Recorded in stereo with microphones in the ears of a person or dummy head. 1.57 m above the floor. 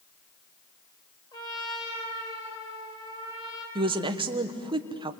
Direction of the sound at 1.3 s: 25° left (ahead or behind).